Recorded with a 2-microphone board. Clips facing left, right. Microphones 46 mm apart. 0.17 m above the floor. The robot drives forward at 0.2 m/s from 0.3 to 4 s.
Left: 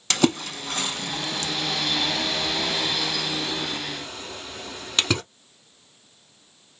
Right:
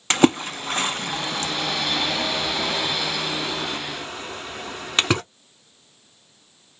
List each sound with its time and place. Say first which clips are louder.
0.1 s a splash: right 4 dB; 30° right (ahead or behind), 0.6 m